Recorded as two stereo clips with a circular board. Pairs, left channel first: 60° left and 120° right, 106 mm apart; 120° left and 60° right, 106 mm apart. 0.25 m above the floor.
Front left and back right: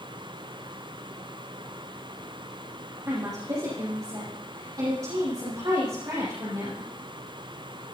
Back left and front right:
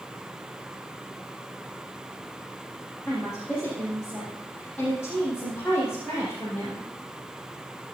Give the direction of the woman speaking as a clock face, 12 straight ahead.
6 o'clock.